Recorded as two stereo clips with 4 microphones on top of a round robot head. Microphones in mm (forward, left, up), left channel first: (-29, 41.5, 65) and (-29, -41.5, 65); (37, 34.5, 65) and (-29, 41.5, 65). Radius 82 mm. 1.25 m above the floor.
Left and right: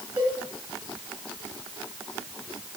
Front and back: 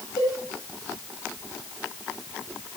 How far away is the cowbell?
About 7.5 m.